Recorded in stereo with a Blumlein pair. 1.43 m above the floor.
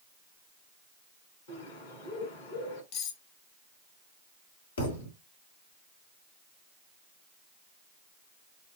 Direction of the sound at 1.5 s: 65° left.